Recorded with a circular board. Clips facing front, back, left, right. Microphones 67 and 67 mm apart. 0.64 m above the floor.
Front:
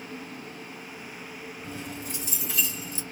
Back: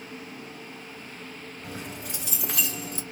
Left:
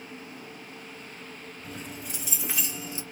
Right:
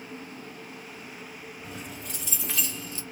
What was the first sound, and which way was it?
Keys jangling, straight behind.